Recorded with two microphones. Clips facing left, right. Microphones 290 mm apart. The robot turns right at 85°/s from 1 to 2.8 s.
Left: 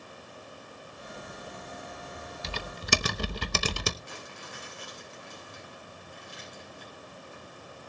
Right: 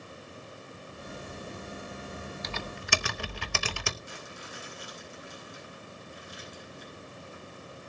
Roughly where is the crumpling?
Left.